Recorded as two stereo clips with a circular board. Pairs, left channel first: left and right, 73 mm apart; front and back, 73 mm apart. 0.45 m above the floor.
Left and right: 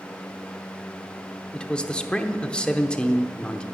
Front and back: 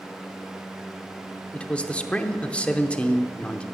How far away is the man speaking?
About 0.7 m.